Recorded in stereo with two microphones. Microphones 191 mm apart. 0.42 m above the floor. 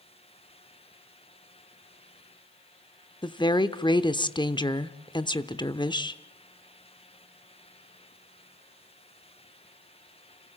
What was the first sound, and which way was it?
A woman speaking, 25° left (ahead or behind).